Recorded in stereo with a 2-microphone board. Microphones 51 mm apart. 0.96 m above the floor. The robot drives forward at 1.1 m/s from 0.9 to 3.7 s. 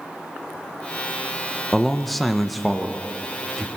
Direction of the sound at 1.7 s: Centre (ahead or behind).